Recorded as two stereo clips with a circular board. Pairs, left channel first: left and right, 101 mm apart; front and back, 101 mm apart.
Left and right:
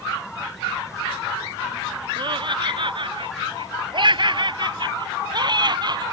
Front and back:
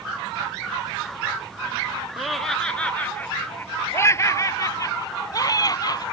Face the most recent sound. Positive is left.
turn(degrees=-45)